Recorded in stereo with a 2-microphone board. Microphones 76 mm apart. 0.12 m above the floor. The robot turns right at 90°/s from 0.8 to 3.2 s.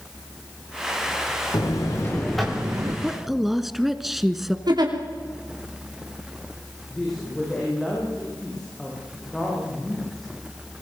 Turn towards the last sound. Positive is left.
turn(degrees=5)  # may be behind; listen again after turning